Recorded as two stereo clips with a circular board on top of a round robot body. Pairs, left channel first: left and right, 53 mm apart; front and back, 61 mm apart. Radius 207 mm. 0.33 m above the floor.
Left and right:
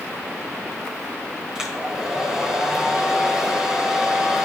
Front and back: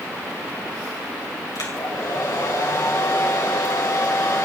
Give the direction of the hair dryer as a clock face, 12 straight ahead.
12 o'clock.